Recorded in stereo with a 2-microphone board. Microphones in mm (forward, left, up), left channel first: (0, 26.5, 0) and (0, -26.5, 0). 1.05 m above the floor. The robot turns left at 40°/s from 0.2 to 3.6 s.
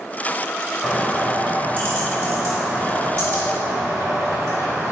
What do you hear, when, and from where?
0.8 s a bird: 5° left, 2 m; by 4.9 s 110° right, 2 m